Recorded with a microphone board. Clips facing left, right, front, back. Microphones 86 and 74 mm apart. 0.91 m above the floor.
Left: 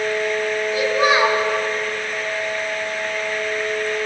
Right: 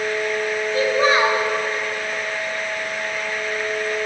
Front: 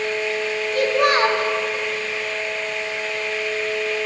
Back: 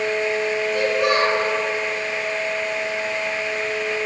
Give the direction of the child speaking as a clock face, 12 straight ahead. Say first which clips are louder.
Even, front 3 dB; 11 o'clock.